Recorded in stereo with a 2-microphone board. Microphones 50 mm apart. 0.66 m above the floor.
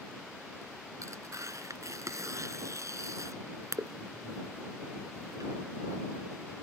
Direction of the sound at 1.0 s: 90° right.